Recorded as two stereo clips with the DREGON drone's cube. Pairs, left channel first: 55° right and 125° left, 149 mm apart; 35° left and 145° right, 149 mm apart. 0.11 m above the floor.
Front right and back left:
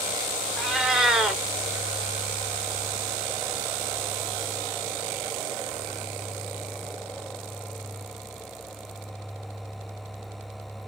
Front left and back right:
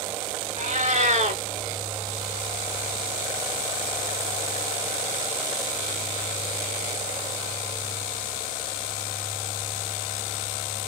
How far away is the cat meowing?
About 1.0 m.